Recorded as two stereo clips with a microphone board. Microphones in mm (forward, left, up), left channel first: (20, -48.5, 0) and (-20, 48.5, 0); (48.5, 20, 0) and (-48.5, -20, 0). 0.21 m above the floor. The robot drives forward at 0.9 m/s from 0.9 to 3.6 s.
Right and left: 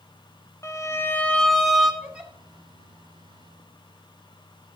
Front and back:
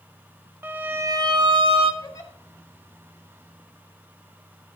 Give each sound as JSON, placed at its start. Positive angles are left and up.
{"t": 0.6, "sound": "a violin", "azimuth_deg": -105, "distance_m": 0.6}
{"t": 2.0, "sound": "a giggle", "azimuth_deg": 35, "distance_m": 1.8}